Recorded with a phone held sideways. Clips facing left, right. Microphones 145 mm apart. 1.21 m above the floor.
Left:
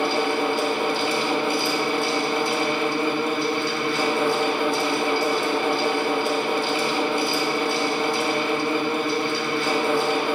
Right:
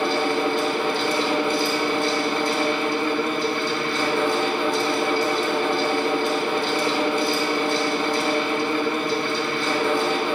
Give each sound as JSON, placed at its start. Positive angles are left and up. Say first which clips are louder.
{"t": 0.0, "sound": "a fan", "louder": "right 1 dB", "side_deg": 10, "distance_m": 2.0}